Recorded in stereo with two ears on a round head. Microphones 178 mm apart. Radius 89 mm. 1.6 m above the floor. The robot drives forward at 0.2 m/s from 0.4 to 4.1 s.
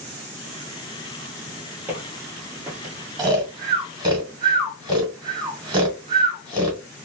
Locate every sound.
1.9 s footsteps: 10° right (ahead or behind), 1.7 m; by 2.9 s 20° right (ahead or behind), 1.7 m
3.2 s snoring: 20° right (ahead or behind), 1.0 m